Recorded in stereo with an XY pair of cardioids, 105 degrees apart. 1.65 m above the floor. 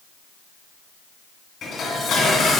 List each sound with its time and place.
1.6 s dishes clattering: 65° left, 2.0 m